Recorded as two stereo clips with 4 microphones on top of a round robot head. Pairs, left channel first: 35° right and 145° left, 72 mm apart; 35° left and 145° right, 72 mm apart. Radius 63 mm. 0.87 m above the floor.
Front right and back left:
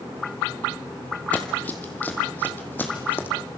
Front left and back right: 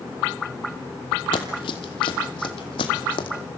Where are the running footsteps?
35° left, 2.0 m; by 3.3 s 30° left, 3 m.